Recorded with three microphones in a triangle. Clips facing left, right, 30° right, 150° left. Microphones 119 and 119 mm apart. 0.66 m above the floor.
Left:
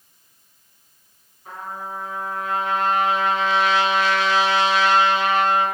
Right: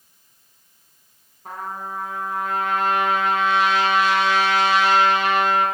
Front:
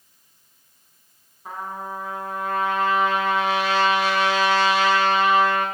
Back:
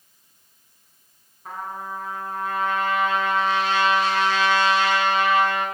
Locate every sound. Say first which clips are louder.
1.4 s a trumpet: right 2 dB, front 1 dB; 110° right, 0.9 m